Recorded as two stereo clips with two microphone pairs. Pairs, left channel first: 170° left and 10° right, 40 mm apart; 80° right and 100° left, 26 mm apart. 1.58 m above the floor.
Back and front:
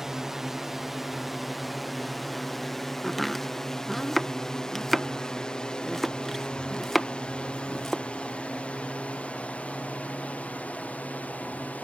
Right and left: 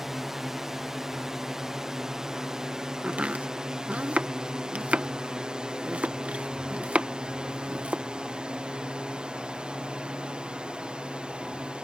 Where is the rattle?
I don't hear a rattle.